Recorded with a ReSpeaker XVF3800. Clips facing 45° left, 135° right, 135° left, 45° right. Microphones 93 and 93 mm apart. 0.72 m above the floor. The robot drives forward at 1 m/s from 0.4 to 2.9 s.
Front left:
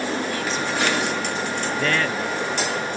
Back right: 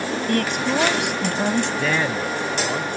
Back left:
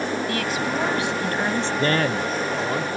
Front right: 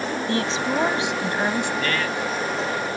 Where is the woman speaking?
105° right; by 1.7 s 125° right.